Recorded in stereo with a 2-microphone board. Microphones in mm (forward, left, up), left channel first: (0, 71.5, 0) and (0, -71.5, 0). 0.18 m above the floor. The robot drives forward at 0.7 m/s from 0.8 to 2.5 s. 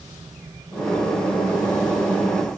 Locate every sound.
Only background noise.